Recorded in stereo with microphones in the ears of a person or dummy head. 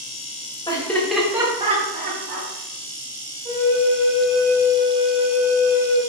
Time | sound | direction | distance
0.7 | laughter | 25° left (ahead or behind) | 0.9 m
3.5 | a flute | 30° right (ahead or behind) | 1.3 m